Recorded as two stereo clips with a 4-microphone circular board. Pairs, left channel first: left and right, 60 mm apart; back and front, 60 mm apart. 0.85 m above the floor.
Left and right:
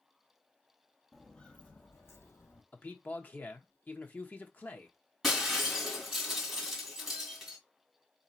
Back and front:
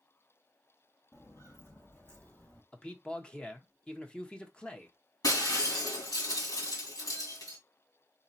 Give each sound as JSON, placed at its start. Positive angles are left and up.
{"t": 1.1, "sound": "footsteps", "azimuth_deg": 175, "distance_m": 1.2}
{"t": 2.7, "sound": "a man speaking", "azimuth_deg": 120, "distance_m": 1.0}
{"t": 5.2, "sound": "breaking glass", "azimuth_deg": 180, "distance_m": 3.0}